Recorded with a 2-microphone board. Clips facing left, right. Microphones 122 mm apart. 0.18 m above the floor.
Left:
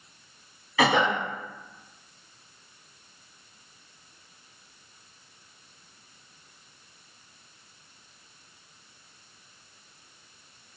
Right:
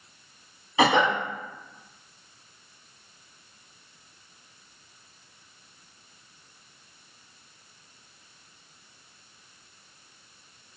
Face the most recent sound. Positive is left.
turn(degrees=-25)  # may be behind; listen again after turning